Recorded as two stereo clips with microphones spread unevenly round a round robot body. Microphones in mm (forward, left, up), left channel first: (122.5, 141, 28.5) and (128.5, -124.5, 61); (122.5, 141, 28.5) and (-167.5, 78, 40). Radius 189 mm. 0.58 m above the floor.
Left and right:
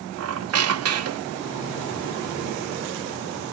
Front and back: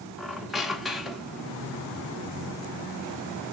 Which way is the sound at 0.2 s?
75° right.